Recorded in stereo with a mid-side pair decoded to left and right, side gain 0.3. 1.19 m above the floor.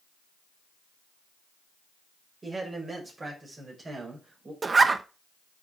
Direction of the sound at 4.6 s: 45° right.